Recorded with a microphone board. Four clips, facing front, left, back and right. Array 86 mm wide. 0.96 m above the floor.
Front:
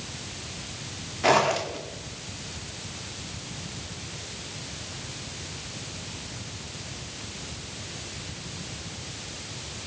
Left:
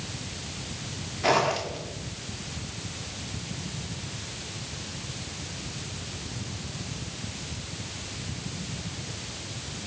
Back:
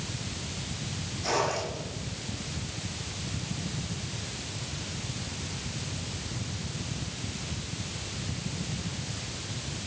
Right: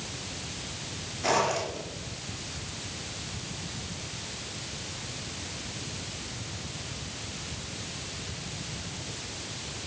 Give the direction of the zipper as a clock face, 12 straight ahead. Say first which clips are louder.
Left 2 dB, front 7 dB; 11 o'clock.